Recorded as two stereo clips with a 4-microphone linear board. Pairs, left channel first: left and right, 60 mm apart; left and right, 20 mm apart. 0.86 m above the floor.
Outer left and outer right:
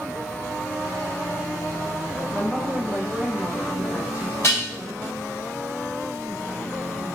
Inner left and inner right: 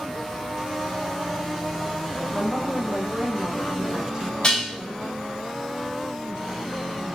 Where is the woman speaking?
15° right (ahead or behind), 0.8 m.